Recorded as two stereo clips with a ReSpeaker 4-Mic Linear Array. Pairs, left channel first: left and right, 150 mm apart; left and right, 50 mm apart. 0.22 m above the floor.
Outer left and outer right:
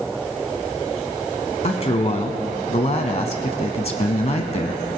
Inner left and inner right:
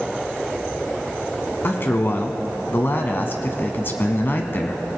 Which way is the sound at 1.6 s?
50° left (ahead or behind).